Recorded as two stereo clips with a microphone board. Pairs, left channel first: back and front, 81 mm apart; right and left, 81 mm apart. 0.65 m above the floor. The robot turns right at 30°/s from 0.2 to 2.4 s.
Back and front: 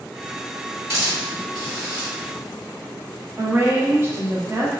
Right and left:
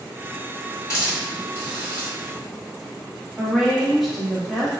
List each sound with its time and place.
0.9 s a hiss: 45° right, 1.7 m; by 2.1 s 10° right, 1.7 m
3.4 s a woman speaking: straight ahead, 0.7 m